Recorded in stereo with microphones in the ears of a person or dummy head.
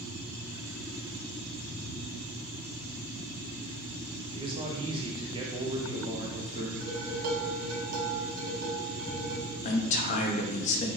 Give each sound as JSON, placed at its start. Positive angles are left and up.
{"t": 4.3, "sound": "a man speaking", "side_deg": -25, "distance_m": 0.6}
{"t": 6.8, "sound": "dishes clattering", "side_deg": -55, "distance_m": 1.1}
{"t": 9.6, "sound": "a man speaking", "side_deg": 35, "distance_m": 0.5}